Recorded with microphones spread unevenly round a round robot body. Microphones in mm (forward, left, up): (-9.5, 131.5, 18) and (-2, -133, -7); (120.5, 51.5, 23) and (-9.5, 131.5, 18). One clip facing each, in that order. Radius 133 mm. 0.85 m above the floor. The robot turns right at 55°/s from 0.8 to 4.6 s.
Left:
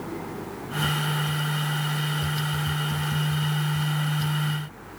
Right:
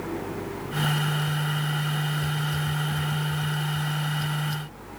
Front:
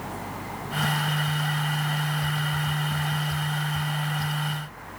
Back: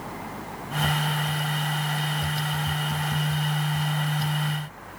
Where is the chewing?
No chewing in this recording.